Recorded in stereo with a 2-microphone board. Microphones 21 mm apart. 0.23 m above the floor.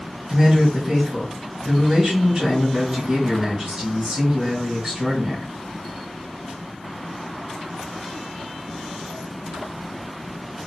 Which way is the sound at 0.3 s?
30° right (ahead or behind).